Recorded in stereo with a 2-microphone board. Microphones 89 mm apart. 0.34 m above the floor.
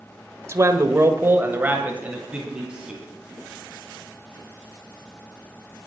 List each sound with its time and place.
0.5 s a man speaking: 30° right (ahead or behind), 1.4 m; by 3.0 s 10° right (ahead or behind), 3.5 m